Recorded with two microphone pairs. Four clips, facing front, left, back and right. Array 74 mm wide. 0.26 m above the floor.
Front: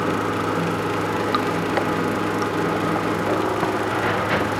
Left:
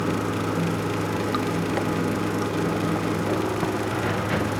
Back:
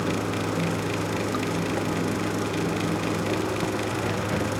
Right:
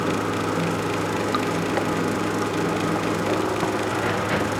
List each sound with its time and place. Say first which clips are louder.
0.0 s running water: right 2 dB, front 5 dB; 10° right